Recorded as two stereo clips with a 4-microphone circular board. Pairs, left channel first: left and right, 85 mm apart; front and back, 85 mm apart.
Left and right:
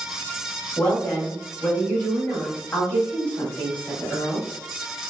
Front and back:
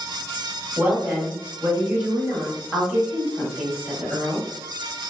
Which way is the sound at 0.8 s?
130° left.